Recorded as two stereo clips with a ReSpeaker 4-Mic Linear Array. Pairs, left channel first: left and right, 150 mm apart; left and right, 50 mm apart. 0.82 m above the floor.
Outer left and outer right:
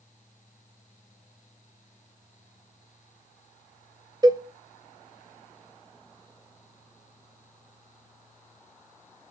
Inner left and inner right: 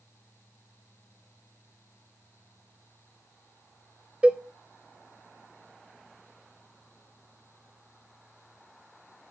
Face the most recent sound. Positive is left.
turn(degrees=-25)  # may be behind; listen again after turning